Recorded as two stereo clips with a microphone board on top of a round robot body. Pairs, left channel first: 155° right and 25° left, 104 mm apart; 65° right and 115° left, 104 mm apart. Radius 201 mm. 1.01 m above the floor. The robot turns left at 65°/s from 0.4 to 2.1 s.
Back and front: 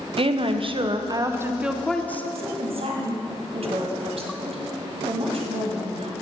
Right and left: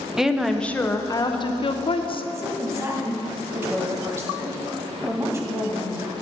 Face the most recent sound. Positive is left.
turn(degrees=50)